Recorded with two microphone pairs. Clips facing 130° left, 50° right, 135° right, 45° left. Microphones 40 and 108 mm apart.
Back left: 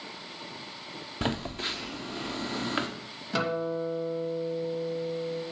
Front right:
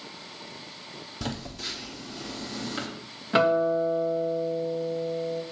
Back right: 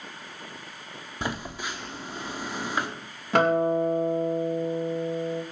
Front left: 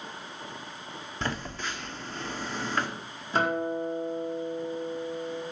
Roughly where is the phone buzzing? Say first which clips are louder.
Back left 4 dB, back right 1 dB; behind left.